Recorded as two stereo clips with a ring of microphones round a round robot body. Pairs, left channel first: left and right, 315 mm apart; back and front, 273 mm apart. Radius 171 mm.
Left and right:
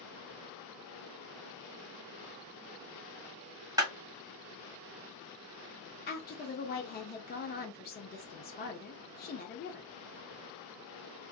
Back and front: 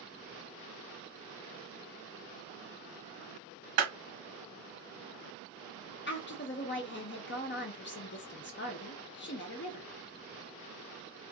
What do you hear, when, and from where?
3.8 s a clap: 10° right, 1.3 m
6.1 s a woman speaking: 145° left, 0.7 m